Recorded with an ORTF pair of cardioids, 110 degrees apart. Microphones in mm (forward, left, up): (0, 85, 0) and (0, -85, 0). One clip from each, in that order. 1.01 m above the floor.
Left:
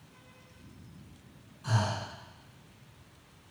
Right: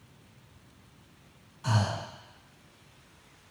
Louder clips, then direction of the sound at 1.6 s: Right 1 dB; 55° right.